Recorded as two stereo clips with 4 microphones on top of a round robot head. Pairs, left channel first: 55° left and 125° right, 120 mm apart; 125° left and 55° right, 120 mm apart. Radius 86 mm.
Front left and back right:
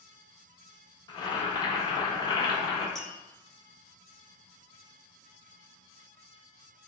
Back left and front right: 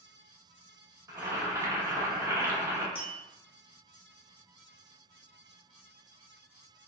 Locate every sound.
1.1 s boiling: 10° left, 1.0 m
3.0 s tapping: 145° left, 1.3 m